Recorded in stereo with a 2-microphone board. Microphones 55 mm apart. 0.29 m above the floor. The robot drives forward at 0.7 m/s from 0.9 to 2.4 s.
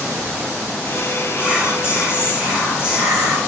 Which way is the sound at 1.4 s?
20° right (ahead or behind).